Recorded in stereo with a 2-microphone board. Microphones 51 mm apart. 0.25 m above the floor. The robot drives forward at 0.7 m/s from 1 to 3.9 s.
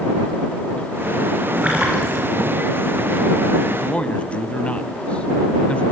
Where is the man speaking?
25° left (ahead or behind), 1.8 m.